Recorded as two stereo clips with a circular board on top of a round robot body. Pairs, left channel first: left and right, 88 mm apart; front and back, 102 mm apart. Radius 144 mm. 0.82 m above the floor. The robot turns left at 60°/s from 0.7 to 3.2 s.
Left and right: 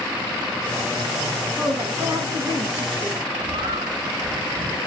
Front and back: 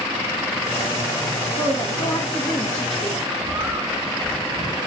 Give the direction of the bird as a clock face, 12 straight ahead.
4 o'clock.